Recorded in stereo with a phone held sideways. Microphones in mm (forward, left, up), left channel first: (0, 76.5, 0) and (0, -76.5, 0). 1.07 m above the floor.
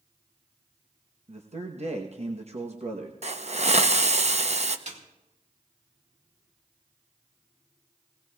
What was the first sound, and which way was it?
A man speaking, 45° right (ahead or behind).